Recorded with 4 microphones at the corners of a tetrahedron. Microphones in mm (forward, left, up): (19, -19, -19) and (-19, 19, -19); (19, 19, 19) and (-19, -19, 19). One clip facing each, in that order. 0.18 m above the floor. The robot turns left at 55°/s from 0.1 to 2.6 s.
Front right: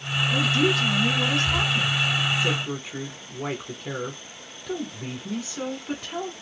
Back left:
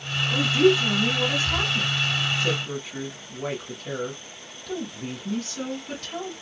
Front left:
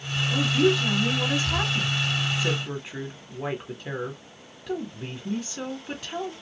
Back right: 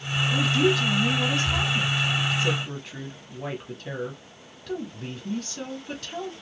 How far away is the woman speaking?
About 1.1 m.